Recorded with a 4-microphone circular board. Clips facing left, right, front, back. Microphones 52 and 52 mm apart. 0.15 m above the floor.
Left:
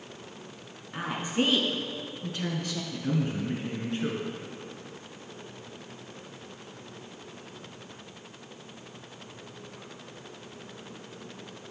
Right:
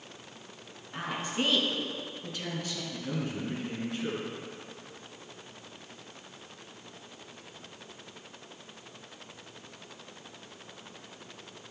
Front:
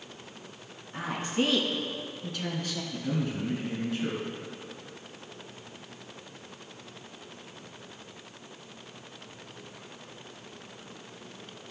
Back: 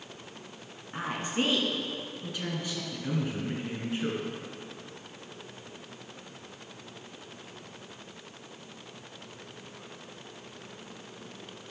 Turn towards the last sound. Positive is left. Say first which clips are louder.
# left 6 dB, front 1 dB
turn(degrees=120)